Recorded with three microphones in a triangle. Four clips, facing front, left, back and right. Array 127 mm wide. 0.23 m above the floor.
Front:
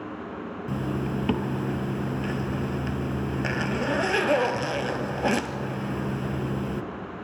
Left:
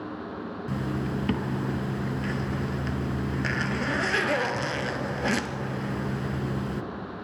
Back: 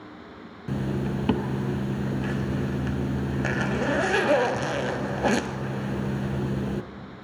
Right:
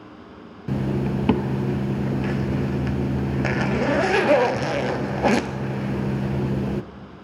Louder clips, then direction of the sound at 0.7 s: Right 7 dB, back 1 dB; 95° right.